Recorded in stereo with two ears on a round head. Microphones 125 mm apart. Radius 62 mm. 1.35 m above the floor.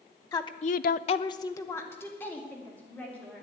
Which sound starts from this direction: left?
A woman speaking, at 0.3 s.